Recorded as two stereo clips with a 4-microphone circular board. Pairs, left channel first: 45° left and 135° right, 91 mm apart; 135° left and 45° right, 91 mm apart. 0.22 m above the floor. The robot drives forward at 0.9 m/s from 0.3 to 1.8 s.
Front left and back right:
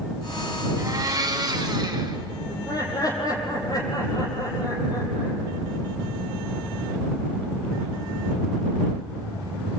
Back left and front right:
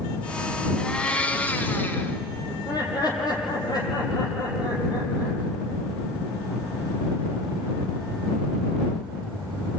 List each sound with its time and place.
0.8 s a blender: 150° right, 1.8 m; by 2.2 s 165° right, 2.5 m
2.5 s laughter: 90° left, 8 m